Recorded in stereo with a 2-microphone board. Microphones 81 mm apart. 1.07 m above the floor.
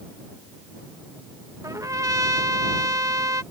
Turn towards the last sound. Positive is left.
turn(degrees=-50)  # may be behind; listen again after turning